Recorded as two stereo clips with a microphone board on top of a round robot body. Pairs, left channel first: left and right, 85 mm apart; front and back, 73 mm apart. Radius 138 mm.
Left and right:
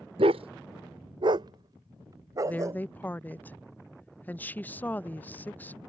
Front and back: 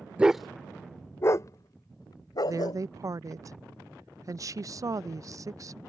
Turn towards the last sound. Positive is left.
turn(degrees=155)